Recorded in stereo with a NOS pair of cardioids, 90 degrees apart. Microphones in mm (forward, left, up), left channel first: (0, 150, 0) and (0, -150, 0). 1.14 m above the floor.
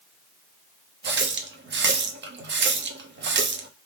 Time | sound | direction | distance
1.0 | a running tap | 40° right | 0.8 m